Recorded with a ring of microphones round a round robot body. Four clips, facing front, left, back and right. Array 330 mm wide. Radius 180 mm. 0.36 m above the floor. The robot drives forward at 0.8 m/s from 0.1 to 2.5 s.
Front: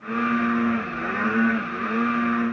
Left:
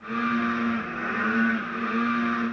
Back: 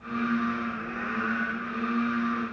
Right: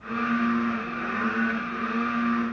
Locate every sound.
Only background noise.